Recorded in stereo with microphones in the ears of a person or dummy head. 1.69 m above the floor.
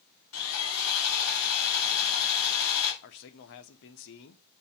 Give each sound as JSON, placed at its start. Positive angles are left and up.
{"t": 0.3, "sound": "sawing", "side_deg": 85, "distance_m": 3.0}
{"t": 3.0, "sound": "a man speaking", "side_deg": 60, "distance_m": 1.0}